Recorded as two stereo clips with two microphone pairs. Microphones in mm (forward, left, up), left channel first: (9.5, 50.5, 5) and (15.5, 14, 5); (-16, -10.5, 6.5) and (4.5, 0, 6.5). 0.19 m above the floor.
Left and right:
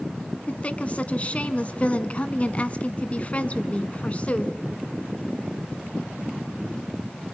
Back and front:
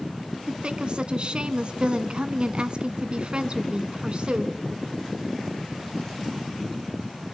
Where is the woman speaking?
60° left, 1.7 m.